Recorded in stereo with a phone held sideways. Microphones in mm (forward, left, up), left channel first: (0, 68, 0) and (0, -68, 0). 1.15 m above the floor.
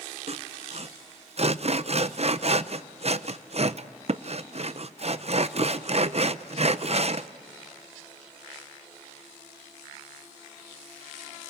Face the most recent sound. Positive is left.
turn(degrees=-50)  # may be behind; listen again after turning